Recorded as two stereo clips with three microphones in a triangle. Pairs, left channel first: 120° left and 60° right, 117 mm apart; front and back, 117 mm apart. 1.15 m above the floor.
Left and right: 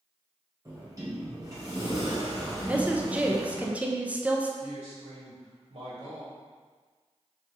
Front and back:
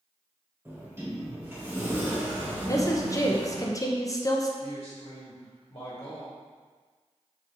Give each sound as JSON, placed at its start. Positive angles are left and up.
{"t": 0.7, "sound": "a sliding door", "azimuth_deg": -115, "distance_m": 1.5}
{"t": 2.7, "sound": "a woman speaking", "azimuth_deg": 5, "distance_m": 0.5}
{"t": 4.6, "sound": "a man speaking", "azimuth_deg": -45, "distance_m": 1.4}